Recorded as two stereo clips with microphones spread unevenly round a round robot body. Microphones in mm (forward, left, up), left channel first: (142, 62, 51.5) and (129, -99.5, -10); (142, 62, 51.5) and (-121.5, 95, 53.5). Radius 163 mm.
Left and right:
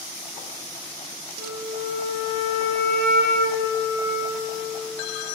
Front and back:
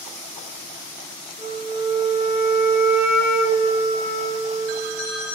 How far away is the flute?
About 1.3 m.